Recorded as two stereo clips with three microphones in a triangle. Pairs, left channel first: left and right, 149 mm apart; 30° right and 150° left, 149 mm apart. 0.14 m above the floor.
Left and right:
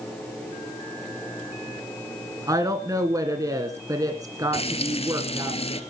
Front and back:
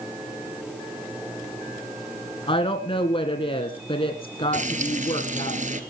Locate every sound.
2.5 s a woman speaking: 40° right, 1.8 m
4.5 s frying: 130° left, 2 m